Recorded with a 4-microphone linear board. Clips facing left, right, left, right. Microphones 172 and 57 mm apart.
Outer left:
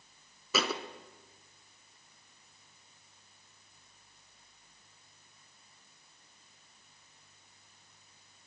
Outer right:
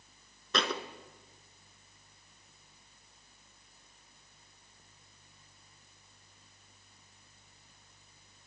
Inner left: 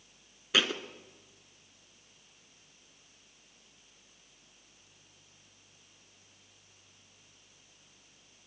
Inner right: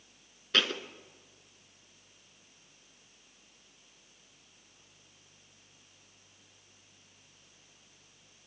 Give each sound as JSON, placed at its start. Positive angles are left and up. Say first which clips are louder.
{"t": 0.5, "sound": "a thud", "louder": "even, inner left 1 dB", "side_deg": 5, "distance_m": 0.7}